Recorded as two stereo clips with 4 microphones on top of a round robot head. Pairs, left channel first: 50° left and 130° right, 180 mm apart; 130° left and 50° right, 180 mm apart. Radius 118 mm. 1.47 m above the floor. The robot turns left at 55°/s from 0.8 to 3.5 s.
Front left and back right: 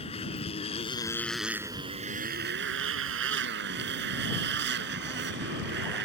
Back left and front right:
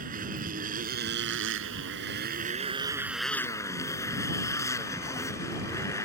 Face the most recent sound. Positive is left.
turn(degrees=-155)